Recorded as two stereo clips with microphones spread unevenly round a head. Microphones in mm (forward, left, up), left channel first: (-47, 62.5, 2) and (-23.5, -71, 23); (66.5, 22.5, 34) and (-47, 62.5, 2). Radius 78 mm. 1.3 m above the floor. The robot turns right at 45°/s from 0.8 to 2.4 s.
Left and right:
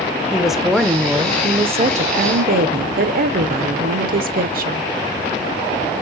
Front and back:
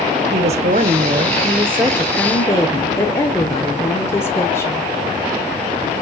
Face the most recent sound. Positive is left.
turn(degrees=-100)